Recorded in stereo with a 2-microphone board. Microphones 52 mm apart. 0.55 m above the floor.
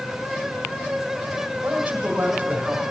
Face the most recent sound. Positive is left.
turn(degrees=-30)  # may be behind; listen again after turning